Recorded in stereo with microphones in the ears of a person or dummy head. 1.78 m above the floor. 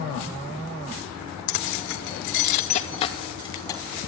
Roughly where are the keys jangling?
Left.